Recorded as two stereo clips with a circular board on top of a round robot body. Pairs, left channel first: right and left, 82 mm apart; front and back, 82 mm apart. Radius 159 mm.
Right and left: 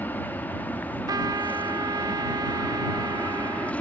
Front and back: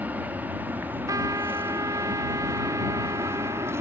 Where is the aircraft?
130° right; by 3.8 s 150° right.